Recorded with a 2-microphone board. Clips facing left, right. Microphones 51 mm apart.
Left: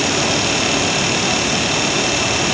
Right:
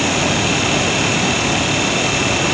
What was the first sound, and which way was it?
Only background noise.